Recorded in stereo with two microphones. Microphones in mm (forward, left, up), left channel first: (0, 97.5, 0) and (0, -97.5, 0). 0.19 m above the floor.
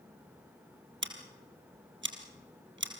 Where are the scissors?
80° right, 2 m.